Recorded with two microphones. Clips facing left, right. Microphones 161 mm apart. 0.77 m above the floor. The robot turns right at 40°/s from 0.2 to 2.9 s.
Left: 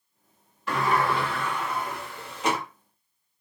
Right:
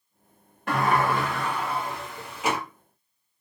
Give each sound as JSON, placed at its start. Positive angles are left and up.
{"t": 0.7, "sound": "a sliding door", "azimuth_deg": -80, "distance_m": 1.0}